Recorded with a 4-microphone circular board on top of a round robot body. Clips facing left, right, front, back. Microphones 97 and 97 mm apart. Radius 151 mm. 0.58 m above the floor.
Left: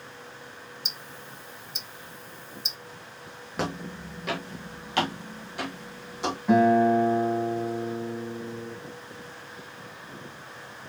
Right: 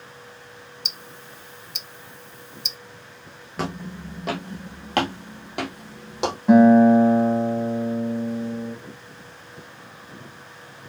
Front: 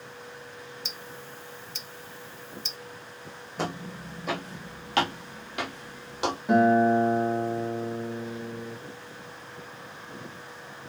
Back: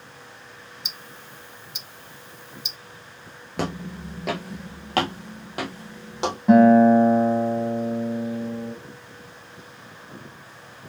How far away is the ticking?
About 0.6 m.